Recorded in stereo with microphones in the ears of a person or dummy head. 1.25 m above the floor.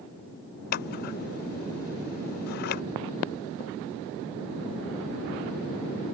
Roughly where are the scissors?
Left.